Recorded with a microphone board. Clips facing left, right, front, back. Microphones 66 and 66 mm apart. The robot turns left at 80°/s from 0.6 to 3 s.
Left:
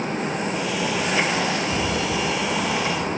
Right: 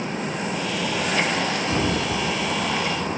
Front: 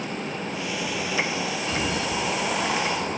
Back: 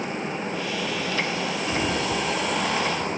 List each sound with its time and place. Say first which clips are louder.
1.7 s a sliding door: even, back 2 dB; 100° right, 1.4 m; by 3.1 s 150° left, 1.4 m